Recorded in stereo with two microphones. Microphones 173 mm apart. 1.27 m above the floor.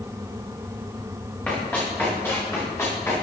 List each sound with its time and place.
1.5 s running footsteps: 10° left (ahead or behind), 9 m; by 3.1 s 15° left (ahead or behind), 10.5 m